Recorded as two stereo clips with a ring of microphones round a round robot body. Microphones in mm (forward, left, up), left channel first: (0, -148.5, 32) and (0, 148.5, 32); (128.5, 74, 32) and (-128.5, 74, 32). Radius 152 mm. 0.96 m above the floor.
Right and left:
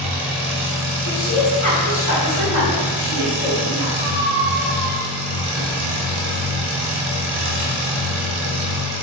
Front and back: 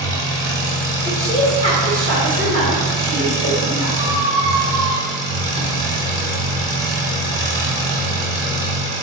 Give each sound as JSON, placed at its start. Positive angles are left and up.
{"t": 0.0, "sound": "an engine running", "azimuth_deg": 75, "distance_m": 1.1}
{"t": 1.1, "sound": "a woman speaking", "azimuth_deg": -60, "distance_m": 1.8}
{"t": 4.0, "sound": "a squeak", "azimuth_deg": 120, "distance_m": 0.6}